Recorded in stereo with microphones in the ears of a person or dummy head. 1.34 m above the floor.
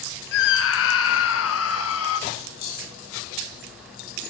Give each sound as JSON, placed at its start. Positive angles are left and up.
{"t": 0.3, "sound": "a scream", "side_deg": 70, "distance_m": 1.5}
{"t": 2.3, "sound": "keys jangling", "side_deg": 55, "distance_m": 7.0}